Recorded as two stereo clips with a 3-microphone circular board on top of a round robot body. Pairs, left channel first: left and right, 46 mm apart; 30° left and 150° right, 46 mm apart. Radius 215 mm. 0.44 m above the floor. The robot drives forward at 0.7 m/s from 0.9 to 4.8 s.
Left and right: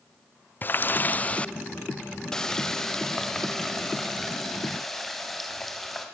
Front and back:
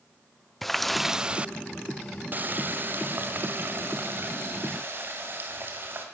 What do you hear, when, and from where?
0.6 s a running tap: 120° left, 0.6 m; by 6.0 s 175° left, 3 m